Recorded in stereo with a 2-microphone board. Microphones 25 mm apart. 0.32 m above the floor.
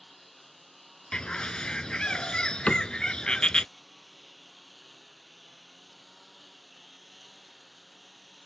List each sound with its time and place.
0.0 s a lawn mower: 5° left (ahead or behind); by 8.5 s 5° right (ahead or behind)
1.1 s a bird: 40° left (ahead or behind)
2.7 s a cupboard door: 80° left